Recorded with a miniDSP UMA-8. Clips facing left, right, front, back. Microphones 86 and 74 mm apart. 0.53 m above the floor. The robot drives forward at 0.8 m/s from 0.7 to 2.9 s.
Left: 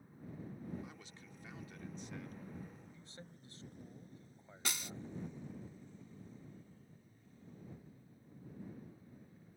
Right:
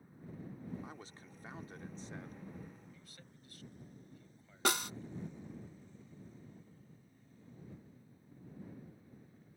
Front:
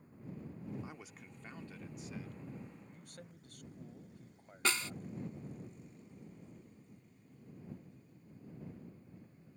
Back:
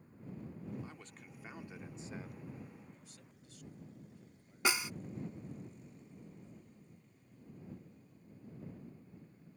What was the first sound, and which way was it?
A man speaking, 65° right.